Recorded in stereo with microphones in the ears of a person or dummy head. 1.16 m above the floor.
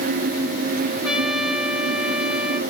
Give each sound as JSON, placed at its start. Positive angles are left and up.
{"t": 1.0, "sound": "a trumpet", "side_deg": 0, "distance_m": 1.3}